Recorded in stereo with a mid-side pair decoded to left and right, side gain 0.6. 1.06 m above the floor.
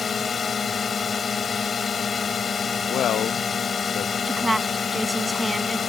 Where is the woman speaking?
10° right.